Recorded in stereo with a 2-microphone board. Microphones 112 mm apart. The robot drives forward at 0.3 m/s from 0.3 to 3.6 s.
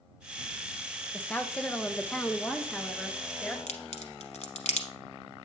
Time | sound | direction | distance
1.1 | a woman speaking | 10° left (ahead or behind) | 0.5 m
3.7 | a crack | 75° left (ahead or behind) | 0.9 m